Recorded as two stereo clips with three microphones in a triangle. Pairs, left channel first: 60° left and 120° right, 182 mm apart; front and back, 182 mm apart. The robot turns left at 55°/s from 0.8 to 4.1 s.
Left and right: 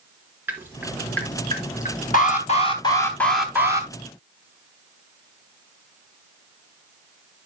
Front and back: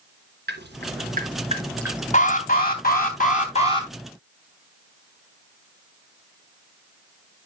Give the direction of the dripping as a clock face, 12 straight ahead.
7 o'clock.